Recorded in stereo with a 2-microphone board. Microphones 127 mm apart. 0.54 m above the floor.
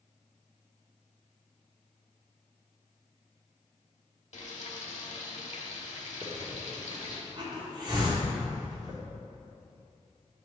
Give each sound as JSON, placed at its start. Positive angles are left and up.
{"t": 4.3, "sound": "frying", "side_deg": 65, "distance_m": 1.1}
{"t": 6.2, "sound": "a hiss", "side_deg": -35, "distance_m": 1.2}